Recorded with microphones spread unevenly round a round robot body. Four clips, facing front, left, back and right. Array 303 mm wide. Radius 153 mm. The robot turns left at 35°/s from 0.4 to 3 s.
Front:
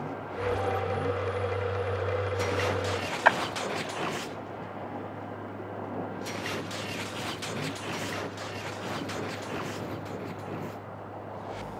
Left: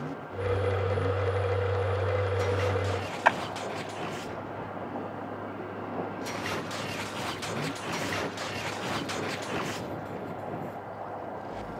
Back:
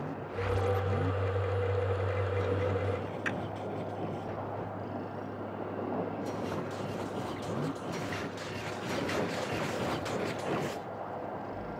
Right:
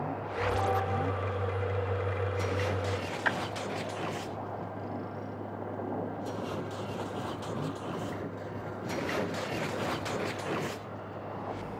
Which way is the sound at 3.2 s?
25° left.